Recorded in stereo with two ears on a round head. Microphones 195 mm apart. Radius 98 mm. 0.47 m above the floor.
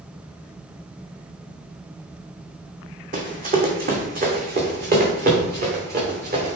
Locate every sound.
3.1 s running footsteps: 40° right (ahead or behind), 1.9 m; by 6.6 s 45° right (ahead or behind), 3.5 m